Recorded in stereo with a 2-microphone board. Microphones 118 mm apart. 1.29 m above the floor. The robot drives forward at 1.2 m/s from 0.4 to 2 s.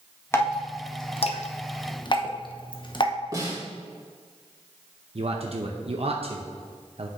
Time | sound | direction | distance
0.3 | dripping | 20° left (ahead or behind) | 1.4 m
3.3 | a snare drum | 35° right (ahead or behind) | 2.5 m
5.2 | a man speaking | 60° right (ahead or behind) | 0.7 m